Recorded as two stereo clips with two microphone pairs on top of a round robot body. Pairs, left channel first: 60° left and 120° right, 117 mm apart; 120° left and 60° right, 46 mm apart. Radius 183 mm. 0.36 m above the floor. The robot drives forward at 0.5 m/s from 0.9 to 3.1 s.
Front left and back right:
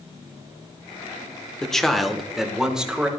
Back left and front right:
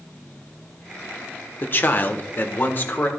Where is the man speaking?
140° left, 1.7 m; by 3.1 s 155° left, 2 m.